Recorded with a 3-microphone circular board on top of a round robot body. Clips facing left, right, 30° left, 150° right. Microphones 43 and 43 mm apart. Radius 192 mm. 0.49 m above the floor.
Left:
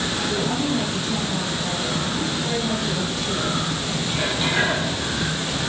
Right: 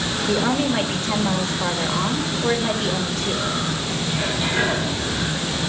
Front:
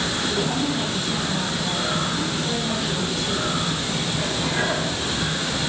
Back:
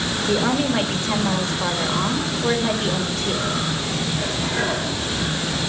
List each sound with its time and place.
0.3 s a woman speaking: 120° right, 2.5 m